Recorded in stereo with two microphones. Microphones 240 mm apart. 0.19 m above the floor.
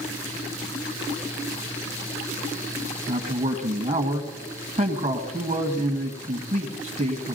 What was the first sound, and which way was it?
A man speaking, 30° right (ahead or behind).